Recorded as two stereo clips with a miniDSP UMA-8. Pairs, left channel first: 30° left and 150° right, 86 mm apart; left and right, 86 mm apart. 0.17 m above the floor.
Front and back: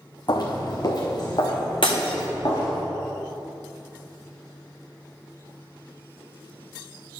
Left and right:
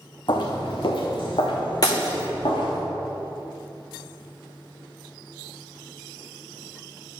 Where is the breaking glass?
50° left, 1.1 m.